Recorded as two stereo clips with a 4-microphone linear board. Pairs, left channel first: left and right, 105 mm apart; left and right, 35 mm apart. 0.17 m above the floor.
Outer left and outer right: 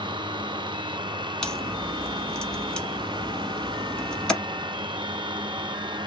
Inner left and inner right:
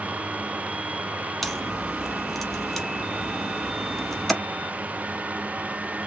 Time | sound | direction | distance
1.4 | a crack | 10° left (ahead or behind) | 0.9 m